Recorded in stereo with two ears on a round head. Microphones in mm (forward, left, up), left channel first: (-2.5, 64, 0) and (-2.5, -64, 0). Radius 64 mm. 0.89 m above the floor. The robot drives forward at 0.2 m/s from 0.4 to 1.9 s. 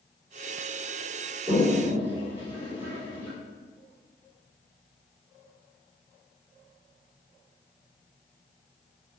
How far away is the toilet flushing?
About 3 m.